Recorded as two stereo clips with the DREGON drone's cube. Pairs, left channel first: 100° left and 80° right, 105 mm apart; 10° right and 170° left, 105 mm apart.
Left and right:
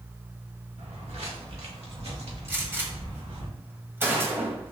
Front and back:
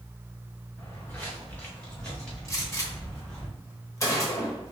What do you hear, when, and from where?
0.8 s footsteps: 80° right, 1.4 m; by 3.5 s 95° right, 3 m
2.5 s a gunshot: 35° right, 1.1 m